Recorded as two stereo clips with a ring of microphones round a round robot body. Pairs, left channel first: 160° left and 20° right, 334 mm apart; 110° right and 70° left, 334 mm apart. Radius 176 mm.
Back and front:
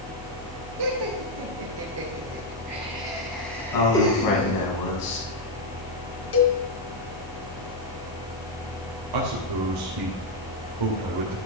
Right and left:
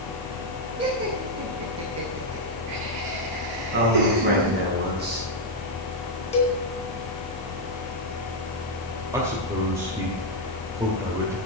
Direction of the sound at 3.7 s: 130° left.